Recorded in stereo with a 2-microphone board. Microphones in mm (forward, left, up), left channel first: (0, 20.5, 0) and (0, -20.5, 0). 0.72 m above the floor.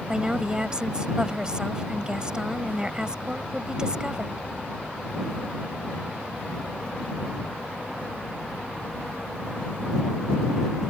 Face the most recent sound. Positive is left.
turn(degrees=-20)  # may be behind; listen again after turning